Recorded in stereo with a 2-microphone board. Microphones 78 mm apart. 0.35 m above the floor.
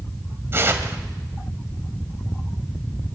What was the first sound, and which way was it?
Tearing paper, 35° right (ahead or behind).